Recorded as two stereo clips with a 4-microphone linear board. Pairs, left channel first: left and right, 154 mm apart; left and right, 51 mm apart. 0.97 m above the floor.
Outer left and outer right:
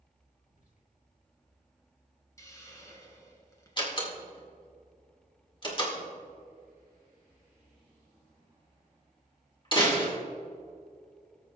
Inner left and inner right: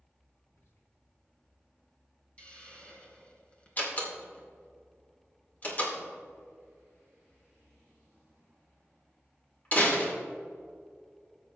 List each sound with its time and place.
0.5 s whispering: 55° left (ahead or behind), 2 m
2.4 s a hiss: 20° left (ahead or behind), 1.6 m
3.8 s a door slam: 30° left (ahead or behind), 1.9 m